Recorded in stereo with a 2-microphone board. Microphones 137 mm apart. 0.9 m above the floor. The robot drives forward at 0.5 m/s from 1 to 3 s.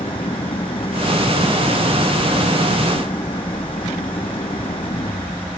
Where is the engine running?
40° left (ahead or behind).